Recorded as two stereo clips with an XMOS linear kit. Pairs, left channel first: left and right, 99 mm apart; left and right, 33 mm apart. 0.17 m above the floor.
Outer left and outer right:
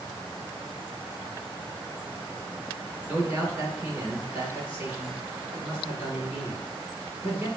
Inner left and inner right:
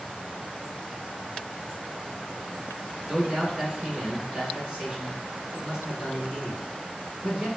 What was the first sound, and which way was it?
A man speaking, 25° right (ahead or behind).